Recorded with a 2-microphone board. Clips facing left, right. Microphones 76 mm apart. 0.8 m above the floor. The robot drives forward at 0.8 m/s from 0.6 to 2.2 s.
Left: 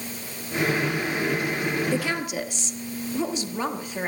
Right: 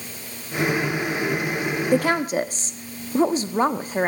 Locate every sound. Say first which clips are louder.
1.9 s a woman speaking: right 6 dB; 50° right (ahead or behind), 0.9 m; by 4.1 s 40° right (ahead or behind), 1.1 m